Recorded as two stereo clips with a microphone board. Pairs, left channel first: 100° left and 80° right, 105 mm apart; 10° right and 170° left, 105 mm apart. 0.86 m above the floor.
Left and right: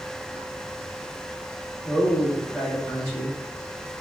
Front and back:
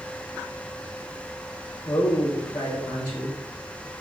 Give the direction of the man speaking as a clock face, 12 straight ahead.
11 o'clock.